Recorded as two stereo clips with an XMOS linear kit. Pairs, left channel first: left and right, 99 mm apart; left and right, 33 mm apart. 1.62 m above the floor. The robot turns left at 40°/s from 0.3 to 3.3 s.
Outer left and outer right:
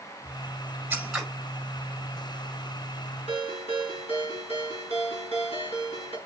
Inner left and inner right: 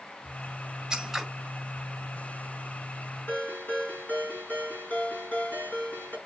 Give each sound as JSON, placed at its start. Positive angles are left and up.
{"t": 0.9, "sound": "scissors", "side_deg": -15, "distance_m": 5.0}
{"t": 3.3, "sound": "a ringtone", "side_deg": 75, "distance_m": 6.5}